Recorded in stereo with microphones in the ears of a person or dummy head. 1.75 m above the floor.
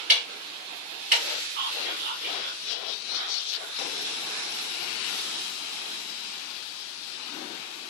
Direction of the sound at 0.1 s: 5° right (ahead or behind).